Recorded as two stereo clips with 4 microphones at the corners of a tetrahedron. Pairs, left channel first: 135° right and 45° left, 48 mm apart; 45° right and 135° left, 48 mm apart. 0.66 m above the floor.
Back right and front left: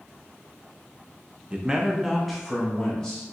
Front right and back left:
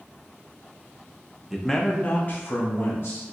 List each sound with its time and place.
1.5 s a man speaking: 60° left, 0.5 m; by 3.2 s 65° right, 1.2 m